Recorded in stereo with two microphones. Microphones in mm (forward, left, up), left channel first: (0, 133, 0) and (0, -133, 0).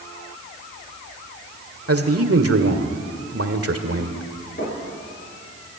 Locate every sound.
1.9 s a man speaking: 60° right (ahead or behind), 1.7 m
4.6 s knocking: 40° left (ahead or behind), 9.5 m